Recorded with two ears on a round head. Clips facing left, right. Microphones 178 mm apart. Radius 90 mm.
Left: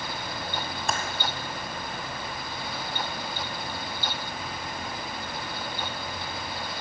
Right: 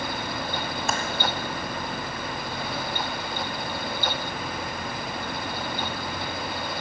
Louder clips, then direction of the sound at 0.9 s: Right 1 dB; centre (ahead or behind).